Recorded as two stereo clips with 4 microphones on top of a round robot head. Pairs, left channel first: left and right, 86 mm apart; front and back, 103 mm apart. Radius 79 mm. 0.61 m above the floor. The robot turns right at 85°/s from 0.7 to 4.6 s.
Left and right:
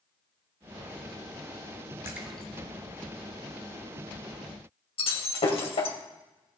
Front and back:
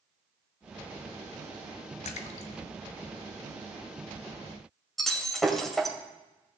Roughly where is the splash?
Ahead.